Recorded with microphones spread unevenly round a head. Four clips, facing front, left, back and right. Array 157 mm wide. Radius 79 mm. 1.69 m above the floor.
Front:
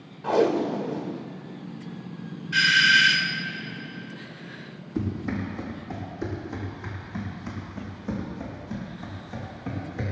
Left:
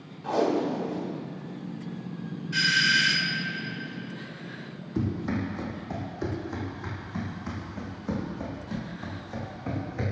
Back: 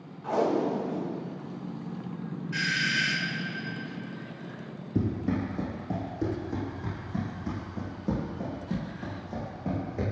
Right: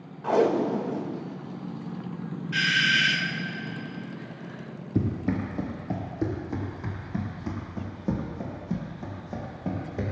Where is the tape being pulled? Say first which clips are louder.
Right 3 dB, front 4 dB; 45° right, 1.7 m.